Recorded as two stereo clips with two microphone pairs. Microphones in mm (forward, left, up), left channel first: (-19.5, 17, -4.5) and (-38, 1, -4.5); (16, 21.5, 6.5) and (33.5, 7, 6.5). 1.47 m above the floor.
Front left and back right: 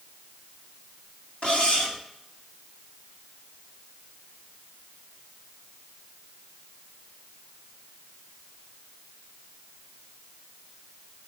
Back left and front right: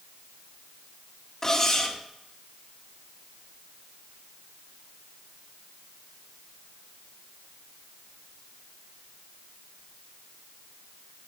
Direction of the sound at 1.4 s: 75° left.